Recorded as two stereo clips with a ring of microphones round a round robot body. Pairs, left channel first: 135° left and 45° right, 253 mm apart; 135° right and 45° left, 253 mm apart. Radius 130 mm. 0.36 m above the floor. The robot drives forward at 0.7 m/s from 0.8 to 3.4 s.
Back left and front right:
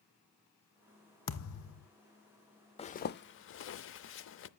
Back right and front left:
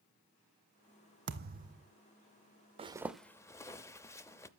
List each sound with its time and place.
1.3 s a thud: 95° left, 1.1 m; by 1.9 s 115° left, 1.2 m
2.8 s a zipper: 90° left, 0.5 m; by 4.5 s 150° left, 0.7 m